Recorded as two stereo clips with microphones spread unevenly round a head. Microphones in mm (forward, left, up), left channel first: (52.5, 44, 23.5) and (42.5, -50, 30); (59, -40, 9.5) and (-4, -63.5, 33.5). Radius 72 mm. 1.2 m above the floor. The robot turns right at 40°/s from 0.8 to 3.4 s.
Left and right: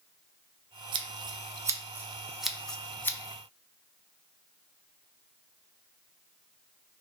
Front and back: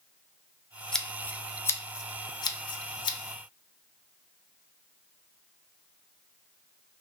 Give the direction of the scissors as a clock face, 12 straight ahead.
2 o'clock.